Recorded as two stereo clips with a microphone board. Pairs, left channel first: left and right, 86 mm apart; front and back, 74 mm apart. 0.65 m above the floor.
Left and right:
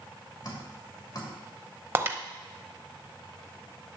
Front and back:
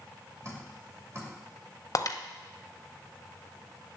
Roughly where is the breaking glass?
Ahead right.